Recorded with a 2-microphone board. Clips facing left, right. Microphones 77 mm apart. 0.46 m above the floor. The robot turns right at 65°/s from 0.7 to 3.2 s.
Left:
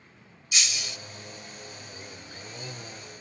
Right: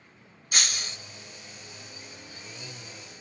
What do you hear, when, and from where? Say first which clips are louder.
0.5 s breaking glass: right 1 dB; 50° right (ahead or behind), 0.5 m; by 1.0 s 30° right (ahead or behind), 0.5 m